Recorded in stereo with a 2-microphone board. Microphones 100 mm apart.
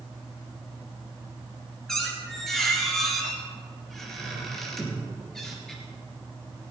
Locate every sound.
1.9 s a squeak: 5° left (ahead or behind), 2.5 m